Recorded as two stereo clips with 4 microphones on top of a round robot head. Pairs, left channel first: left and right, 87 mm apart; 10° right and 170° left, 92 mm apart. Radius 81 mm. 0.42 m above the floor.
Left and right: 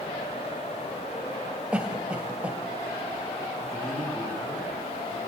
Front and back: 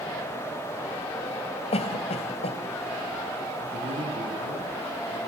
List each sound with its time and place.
1.7 s a cough: 10° right, 2.5 m
3.6 s a man speaking: 175° left, 7.5 m